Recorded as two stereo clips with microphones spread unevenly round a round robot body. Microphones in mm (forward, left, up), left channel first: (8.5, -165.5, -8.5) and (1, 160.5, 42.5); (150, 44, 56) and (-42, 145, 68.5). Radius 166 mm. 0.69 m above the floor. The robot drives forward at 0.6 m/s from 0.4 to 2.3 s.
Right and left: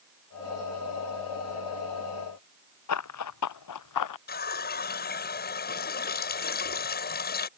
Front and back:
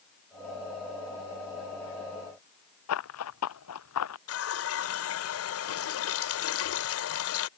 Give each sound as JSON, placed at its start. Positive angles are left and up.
{"t": 2.9, "sound": "running footsteps", "azimuth_deg": -45}
{"t": 4.3, "sound": "a running tap", "azimuth_deg": -25}